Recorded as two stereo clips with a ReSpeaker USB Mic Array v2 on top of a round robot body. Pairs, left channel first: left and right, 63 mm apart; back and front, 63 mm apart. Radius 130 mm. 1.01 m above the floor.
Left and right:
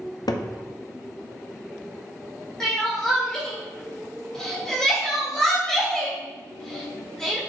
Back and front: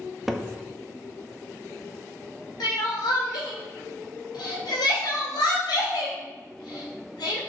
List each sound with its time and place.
0.3 s a cupboard door: 85° left, 0.8 m
2.6 s crying: 175° left, 1.9 m